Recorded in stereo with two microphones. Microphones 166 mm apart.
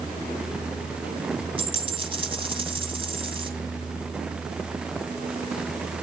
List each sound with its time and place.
1.6 s a dropped coin: 30° right (ahead or behind), 1.9 m